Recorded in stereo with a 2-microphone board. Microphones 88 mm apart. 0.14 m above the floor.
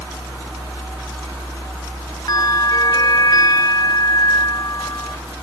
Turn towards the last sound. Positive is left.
turn(degrees=50)  # may be behind; listen again after turning